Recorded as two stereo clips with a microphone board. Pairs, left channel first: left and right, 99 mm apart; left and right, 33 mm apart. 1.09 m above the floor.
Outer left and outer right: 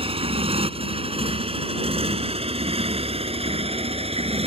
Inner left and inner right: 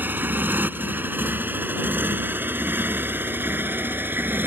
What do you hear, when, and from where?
0.0 s a motorcycle: 70° right (ahead or behind); by 4.5 s 85° right